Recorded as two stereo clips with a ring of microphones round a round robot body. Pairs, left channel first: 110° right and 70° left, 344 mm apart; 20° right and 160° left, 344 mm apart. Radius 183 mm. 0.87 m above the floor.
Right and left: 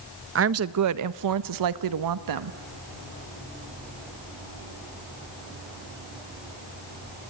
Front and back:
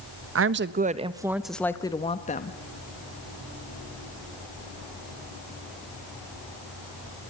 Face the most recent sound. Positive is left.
turn(degrees=40)